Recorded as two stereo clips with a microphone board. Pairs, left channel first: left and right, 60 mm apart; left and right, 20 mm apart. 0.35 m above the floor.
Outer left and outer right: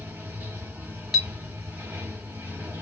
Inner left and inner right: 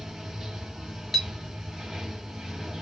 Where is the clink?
Centre (ahead or behind), 0.7 m.